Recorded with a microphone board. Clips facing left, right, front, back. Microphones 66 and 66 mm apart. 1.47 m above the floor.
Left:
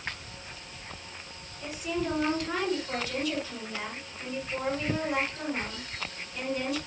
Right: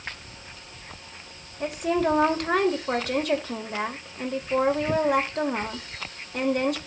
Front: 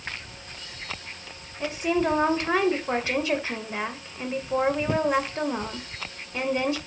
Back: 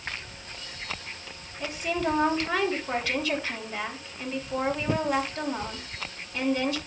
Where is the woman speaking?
65° right, 1.9 m.